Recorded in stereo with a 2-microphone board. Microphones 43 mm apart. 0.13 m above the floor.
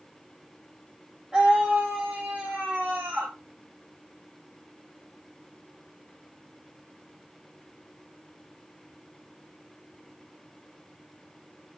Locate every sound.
1.3 s a scream: 15° right (ahead or behind), 5.5 m; by 3.3 s 35° right (ahead or behind), 7.5 m